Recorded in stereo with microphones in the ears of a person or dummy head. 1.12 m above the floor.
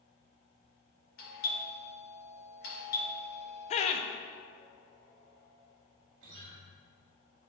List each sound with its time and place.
1.2 s a doorbell: 55° left (ahead or behind), 2 m
3.7 s laughter: 35° left (ahead or behind), 0.5 m
6.2 s a guitar: 75° right (ahead or behind), 2 m